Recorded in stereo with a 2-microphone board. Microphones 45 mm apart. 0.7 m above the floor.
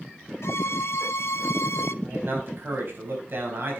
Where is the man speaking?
50° right (ahead or behind), 5 m.